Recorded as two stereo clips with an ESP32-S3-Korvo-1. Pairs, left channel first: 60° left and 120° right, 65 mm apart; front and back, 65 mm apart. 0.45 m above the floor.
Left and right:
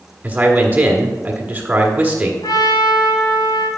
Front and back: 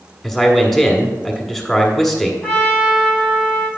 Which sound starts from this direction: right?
A man speaking, at 0.2 s.